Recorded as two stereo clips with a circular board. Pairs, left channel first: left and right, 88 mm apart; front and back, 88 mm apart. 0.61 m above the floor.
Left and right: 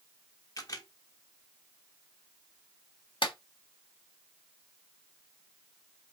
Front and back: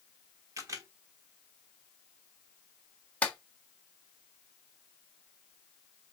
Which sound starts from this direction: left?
A clap, at 3.2 s.